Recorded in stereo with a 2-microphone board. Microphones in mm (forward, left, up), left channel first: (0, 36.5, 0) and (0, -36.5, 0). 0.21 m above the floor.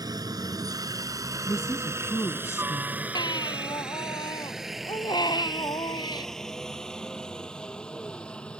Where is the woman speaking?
40° left (ahead or behind).